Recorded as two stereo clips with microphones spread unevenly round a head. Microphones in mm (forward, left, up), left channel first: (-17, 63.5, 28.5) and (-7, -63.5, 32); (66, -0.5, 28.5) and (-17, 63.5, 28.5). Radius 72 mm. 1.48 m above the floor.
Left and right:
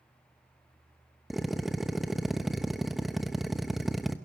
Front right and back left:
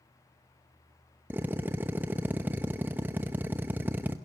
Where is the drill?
170° right, 0.7 m.